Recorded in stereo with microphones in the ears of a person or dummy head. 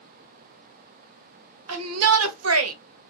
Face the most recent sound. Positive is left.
turn(degrees=-80)